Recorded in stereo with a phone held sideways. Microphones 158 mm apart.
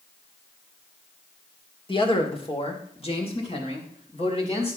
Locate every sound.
1.9 s a man speaking: 35° left (ahead or behind), 2.0 m; by 4.8 s 40° left (ahead or behind), 4 m